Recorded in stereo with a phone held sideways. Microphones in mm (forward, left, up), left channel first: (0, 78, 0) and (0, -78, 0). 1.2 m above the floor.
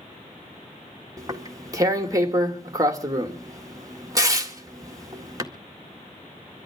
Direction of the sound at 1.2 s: 25° right (ahead or behind).